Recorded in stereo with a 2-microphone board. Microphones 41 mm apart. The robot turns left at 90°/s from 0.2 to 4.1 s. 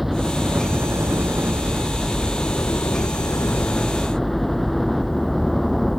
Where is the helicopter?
5° right; by 6.0 s 5° left.